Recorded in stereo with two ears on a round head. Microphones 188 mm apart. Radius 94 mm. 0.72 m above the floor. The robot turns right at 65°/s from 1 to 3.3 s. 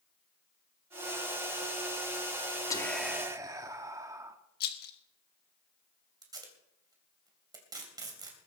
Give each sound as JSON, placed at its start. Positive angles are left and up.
{"t": 2.7, "sound": "whispering", "azimuth_deg": 160, "distance_m": 1.4}
{"t": 4.6, "sound": "a rattle", "side_deg": 50, "distance_m": 1.4}
{"t": 6.2, "sound": "tape being pulled", "side_deg": -20, "distance_m": 3.0}